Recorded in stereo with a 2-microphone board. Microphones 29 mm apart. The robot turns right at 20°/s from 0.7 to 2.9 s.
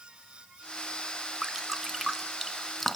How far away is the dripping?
About 2 m.